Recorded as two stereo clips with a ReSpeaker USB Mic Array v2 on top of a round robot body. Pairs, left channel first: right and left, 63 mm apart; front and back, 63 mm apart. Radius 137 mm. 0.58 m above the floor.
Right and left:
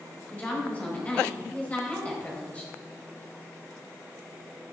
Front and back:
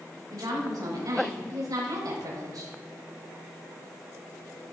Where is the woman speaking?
155° right, 3.5 m.